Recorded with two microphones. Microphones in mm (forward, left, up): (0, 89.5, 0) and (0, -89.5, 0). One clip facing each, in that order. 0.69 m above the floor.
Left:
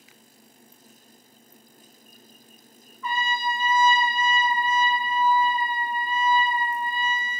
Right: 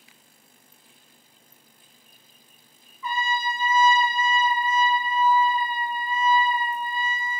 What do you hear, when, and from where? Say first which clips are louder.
3.0 s a trumpet: even; 55° left (ahead or behind), 1.8 m